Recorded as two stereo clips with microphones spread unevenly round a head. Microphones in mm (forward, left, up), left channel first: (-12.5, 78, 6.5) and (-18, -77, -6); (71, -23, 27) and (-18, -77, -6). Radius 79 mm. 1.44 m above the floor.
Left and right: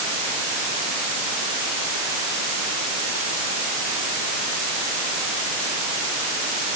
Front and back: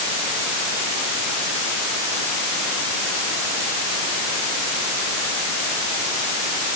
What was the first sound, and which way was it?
Only background noise.